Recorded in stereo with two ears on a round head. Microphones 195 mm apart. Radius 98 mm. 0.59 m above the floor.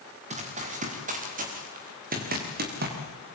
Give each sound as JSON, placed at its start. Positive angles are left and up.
{"t": 0.3, "sound": "running footsteps", "side_deg": -35, "distance_m": 7.0}